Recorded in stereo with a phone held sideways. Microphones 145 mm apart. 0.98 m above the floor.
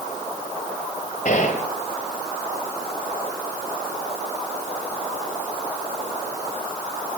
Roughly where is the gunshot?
Left.